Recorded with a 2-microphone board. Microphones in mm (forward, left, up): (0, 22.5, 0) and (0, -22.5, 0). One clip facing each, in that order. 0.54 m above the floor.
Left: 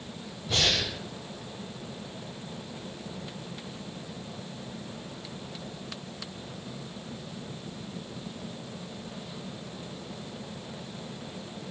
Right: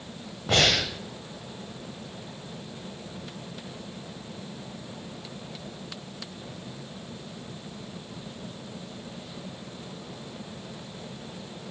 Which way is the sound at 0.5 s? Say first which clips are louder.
Right 5 dB; 80° right.